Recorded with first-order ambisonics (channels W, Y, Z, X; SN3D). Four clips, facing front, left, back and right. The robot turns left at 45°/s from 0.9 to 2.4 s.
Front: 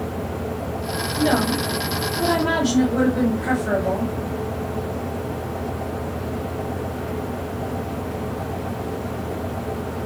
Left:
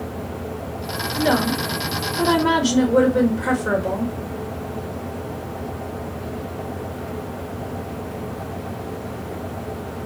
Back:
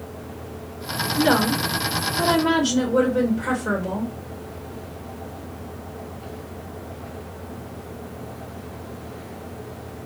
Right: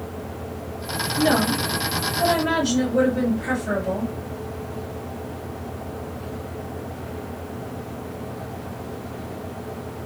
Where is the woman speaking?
160° left, 1.1 m; by 4.1 s 100° left, 1.1 m.